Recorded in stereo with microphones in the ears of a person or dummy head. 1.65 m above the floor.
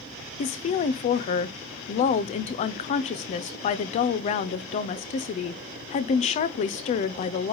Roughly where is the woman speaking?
Left.